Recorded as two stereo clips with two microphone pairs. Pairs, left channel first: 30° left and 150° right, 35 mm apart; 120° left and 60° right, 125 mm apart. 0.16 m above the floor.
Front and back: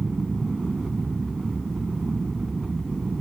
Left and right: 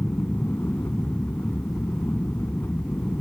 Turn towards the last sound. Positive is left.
turn(degrees=160)